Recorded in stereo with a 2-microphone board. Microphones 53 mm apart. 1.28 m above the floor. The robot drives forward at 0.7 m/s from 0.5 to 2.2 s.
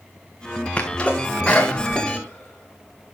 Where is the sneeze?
25° left (ahead or behind), 1.4 m; by 3.1 s 15° left (ahead or behind), 2.5 m.